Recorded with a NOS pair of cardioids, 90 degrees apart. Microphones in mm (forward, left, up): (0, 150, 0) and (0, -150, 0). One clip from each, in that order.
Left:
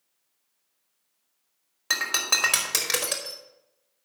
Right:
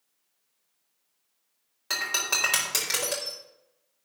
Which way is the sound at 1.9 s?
30° left.